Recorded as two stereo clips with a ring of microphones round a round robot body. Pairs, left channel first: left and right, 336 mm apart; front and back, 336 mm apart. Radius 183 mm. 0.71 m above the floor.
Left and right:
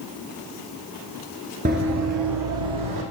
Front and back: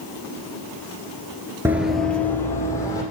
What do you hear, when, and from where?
1.6 s running footsteps: 110° right, 0.7 m; by 3.0 s 80° right, 2.0 m